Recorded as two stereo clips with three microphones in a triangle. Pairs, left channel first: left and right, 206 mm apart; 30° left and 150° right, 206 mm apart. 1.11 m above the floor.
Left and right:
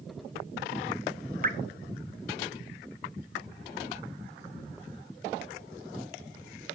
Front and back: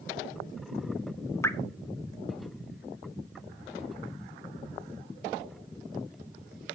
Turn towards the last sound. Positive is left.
turn(degrees=-50)